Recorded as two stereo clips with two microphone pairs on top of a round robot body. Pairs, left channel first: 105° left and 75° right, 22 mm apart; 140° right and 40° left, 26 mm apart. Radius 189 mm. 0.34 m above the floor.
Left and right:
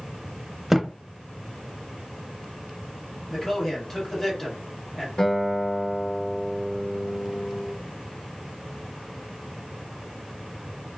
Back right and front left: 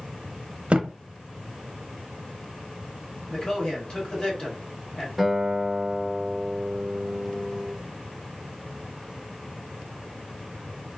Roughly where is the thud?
Ahead.